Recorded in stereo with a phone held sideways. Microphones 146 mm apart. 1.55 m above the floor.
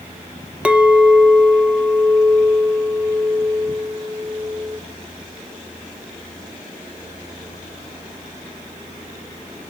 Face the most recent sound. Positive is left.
turn(degrees=-10)  # may be behind; listen again after turning